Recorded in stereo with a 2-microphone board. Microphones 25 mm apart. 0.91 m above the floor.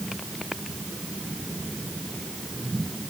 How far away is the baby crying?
No baby crying in this recording.